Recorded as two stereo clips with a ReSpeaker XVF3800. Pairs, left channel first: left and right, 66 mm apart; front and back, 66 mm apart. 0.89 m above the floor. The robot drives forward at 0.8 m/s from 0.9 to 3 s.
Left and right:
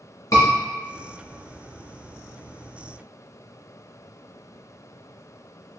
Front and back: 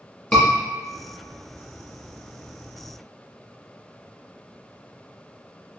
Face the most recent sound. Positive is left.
turn(degrees=130)